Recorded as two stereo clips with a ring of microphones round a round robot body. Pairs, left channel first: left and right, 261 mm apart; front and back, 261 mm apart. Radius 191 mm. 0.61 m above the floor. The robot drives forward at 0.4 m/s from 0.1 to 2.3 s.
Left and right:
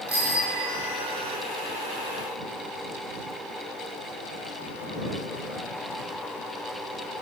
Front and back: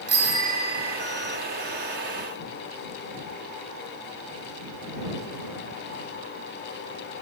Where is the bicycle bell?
155° right, 8 m.